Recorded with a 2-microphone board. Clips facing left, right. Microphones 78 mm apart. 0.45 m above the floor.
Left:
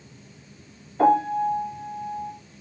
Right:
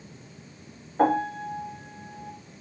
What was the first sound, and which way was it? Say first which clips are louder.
A piano: left 4 dB; 45° right (ahead or behind).